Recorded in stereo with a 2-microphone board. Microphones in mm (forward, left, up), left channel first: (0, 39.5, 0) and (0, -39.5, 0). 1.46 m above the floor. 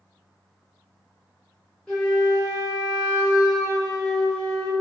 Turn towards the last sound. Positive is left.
turn(degrees=10)  # may be behind; listen again after turning